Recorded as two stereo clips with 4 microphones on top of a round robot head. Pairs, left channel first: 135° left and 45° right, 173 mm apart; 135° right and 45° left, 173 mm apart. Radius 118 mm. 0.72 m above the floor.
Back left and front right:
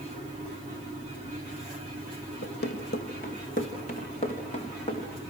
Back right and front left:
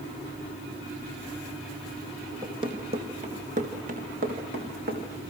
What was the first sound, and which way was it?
Running footsteps, 110° left.